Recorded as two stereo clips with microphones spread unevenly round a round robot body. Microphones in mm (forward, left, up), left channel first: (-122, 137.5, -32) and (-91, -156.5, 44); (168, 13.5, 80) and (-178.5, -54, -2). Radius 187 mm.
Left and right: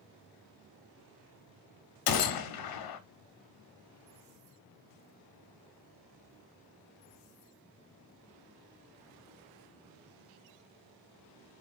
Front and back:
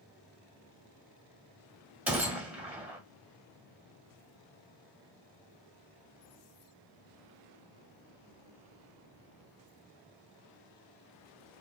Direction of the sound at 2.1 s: 100° left.